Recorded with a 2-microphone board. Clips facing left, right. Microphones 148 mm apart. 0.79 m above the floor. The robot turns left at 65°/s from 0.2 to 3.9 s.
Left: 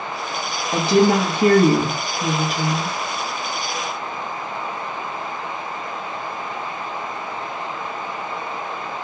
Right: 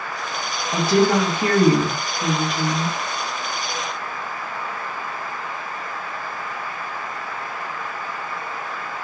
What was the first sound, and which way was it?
A woman speaking, 20° left (ahead or behind).